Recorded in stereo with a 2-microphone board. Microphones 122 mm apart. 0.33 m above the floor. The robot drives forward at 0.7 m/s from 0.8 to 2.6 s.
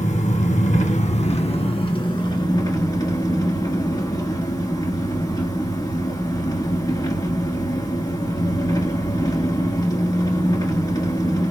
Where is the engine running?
75° left (ahead or behind), 1.0 m; by 11.5 s 35° left (ahead or behind), 1.7 m.